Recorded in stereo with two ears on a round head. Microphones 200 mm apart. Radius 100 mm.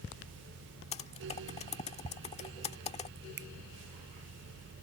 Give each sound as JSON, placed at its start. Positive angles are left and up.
{"t": 0.9, "sound": "typing on a keyboard", "side_deg": 25}
{"t": 3.4, "sound": "a finger snap", "side_deg": -50}